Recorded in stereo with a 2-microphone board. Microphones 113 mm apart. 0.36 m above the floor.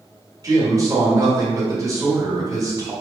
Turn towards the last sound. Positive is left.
turn(degrees=-30)  # may be behind; listen again after turning